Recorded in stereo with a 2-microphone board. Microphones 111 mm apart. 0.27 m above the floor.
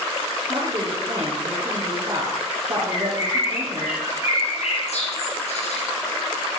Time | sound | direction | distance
0.5 | a woman speaking | 50° right (ahead or behind) | 5 m
2.9 | a bird | 75° left (ahead or behind) | 7 m